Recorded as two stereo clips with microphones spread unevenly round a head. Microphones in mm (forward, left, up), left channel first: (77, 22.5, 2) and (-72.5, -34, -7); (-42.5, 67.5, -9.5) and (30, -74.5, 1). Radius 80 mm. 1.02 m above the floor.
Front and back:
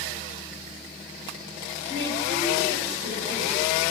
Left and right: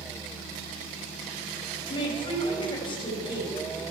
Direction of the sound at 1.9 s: Straight behind.